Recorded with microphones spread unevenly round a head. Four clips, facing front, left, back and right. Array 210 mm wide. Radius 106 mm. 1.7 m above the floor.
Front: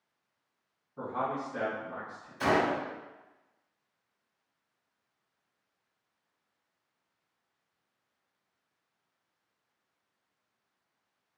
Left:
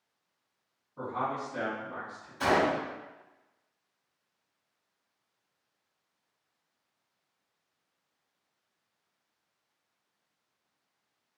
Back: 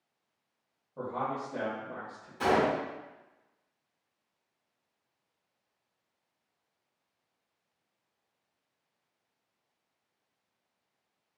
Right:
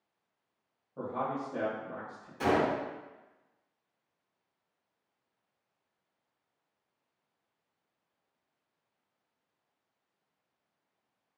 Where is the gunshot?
120° right, 1.9 m.